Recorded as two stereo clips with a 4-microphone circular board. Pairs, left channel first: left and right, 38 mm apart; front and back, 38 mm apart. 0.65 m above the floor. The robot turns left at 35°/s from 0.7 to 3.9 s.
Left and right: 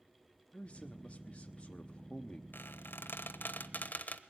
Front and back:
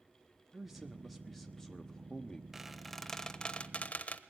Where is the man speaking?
105° left, 1.0 m; by 2.4 s 40° left, 1.0 m.